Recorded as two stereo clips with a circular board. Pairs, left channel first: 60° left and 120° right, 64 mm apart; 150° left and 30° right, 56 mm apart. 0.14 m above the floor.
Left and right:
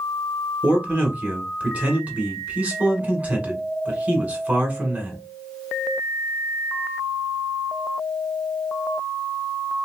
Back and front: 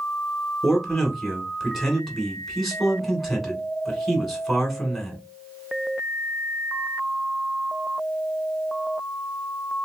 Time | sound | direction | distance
0.6 | a man speaking | 120° right | 1.2 m